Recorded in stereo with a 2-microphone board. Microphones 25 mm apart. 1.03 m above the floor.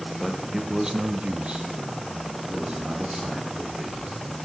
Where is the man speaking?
5° left (ahead or behind), 1.3 m; by 4.2 s 40° right (ahead or behind), 4.5 m.